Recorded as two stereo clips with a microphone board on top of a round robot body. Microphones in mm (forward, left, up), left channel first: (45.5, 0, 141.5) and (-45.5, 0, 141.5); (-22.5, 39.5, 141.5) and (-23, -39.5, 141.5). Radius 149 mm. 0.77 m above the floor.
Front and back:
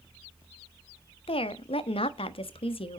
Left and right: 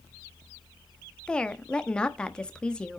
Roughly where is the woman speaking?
Ahead.